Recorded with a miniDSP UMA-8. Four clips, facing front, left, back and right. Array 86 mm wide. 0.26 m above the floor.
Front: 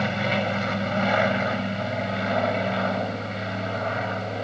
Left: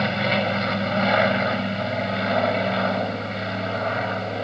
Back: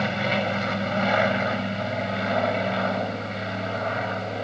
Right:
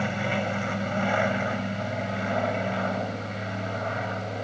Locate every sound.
0.0 s an aircraft: 95° left